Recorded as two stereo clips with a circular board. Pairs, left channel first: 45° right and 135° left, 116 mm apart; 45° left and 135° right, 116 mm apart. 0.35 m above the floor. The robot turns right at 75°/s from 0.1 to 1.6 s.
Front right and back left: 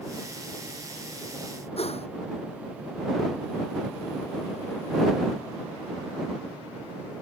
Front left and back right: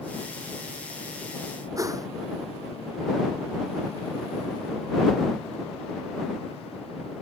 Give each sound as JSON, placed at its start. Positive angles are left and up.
{"t": 1.8, "sound": "a whoosh", "azimuth_deg": -75}